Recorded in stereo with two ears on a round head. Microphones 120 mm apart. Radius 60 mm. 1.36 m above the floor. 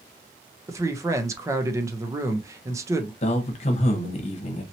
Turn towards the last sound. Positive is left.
turn(degrees=50)  # may be behind; listen again after turning